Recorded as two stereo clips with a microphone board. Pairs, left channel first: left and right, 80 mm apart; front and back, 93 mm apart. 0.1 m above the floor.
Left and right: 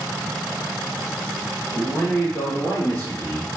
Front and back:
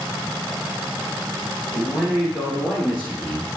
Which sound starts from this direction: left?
A man speaking, at 1.7 s.